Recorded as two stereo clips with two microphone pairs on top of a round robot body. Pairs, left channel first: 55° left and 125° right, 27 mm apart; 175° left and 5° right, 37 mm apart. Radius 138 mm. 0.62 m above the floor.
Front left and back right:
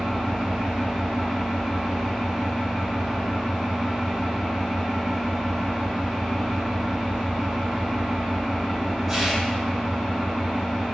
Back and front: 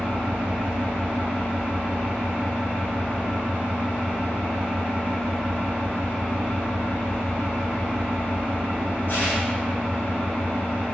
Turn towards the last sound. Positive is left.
turn(degrees=155)